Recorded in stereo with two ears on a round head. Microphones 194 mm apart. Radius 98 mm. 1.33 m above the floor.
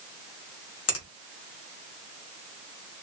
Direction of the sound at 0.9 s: 90° left.